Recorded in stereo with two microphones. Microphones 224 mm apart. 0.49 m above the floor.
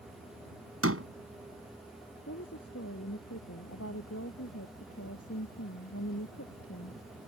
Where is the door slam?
75° right (ahead or behind).